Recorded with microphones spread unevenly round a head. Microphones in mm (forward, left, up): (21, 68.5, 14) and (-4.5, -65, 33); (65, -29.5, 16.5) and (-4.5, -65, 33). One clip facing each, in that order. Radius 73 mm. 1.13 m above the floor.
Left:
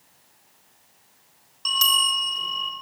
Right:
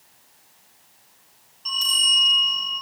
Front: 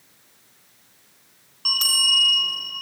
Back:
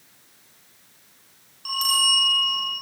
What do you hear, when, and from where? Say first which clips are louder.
1.6 s a bell: left 7 dB, back 3 dB; 75° left, 4 m